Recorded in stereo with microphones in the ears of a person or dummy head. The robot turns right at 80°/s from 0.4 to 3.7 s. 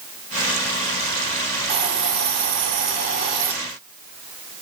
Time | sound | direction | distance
1.7 | a hiss | 155° right | 4 m